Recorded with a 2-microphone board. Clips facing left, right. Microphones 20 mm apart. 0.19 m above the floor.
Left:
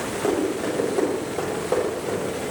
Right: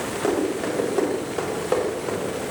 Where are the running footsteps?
15° right (ahead or behind), 4.5 m; by 2.3 s 30° right (ahead or behind), 5 m.